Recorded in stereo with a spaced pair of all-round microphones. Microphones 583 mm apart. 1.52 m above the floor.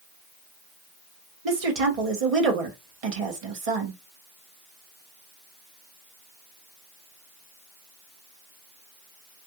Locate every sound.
1.4 s a woman speaking: 70° right (ahead or behind), 0.9 m